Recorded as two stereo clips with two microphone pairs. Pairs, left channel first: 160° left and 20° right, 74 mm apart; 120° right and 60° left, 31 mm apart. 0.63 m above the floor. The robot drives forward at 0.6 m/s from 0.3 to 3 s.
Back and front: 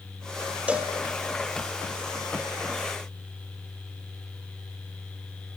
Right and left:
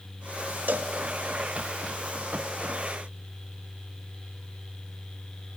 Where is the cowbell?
50° left, 1.0 m; by 0.9 s 60° left, 0.9 m.